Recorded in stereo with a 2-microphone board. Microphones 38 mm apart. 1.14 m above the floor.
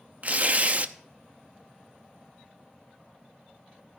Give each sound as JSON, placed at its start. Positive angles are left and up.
{"t": 0.2, "sound": "tearing paper", "side_deg": -35, "distance_m": 0.6}